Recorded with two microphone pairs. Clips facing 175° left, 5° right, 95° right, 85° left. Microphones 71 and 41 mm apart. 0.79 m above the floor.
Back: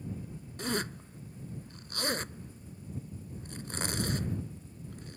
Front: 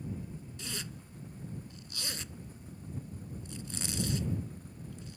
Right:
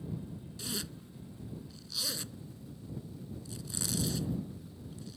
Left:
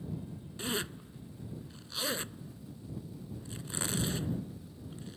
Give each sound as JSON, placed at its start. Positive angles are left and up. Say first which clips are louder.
{"t": 0.6, "sound": "a zipper", "louder": "back 12 dB, left 6 dB", "azimuth_deg": 135}